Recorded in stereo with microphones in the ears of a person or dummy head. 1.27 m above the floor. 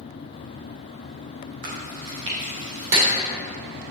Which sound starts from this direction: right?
Chewing, at 1.6 s.